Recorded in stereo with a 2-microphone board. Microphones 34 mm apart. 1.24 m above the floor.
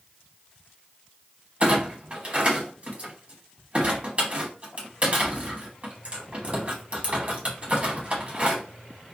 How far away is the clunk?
About 0.9 m.